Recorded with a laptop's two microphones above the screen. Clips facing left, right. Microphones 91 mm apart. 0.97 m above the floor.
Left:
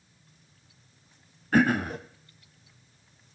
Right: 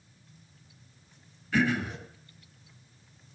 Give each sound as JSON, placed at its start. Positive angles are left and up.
{"t": 1.5, "sound": "throat clearing", "side_deg": 45, "distance_m": 1.1}